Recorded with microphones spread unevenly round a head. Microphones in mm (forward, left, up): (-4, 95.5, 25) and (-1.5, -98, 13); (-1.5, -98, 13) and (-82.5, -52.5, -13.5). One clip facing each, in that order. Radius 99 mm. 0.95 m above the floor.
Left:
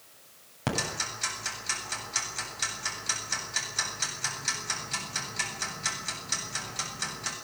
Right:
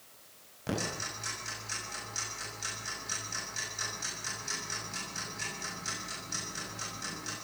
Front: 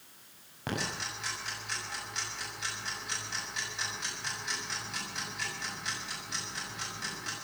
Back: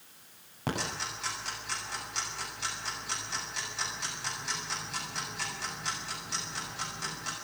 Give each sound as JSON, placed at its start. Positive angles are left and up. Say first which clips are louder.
{"t": 0.7, "sound": "ticking", "louder": "left 2 dB, back 2 dB", "azimuth_deg": 80, "distance_m": 8.0}